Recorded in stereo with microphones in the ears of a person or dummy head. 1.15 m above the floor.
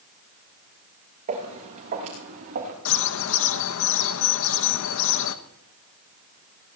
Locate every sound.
1.3 s footsteps: 45° right (ahead or behind), 5.5 m; by 2.8 s 55° right (ahead or behind), 4 m
2.9 s a bird: 70° left (ahead or behind), 0.7 m